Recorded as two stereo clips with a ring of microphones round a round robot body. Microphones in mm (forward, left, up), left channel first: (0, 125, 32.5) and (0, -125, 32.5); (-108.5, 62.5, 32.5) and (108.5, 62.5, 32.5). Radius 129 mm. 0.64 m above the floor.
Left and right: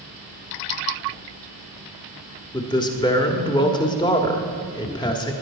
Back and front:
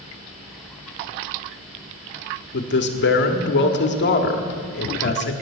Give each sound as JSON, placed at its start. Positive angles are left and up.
{"t": 2.5, "sound": "a man speaking", "azimuth_deg": 160, "distance_m": 1.5}